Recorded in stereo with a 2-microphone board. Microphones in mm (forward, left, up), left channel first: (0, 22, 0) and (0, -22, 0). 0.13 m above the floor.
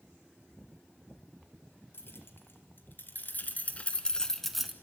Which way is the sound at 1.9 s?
60° left (ahead or behind).